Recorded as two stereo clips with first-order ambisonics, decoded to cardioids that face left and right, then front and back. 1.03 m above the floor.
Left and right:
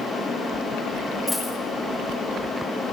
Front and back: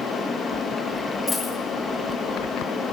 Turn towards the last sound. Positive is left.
turn(degrees=40)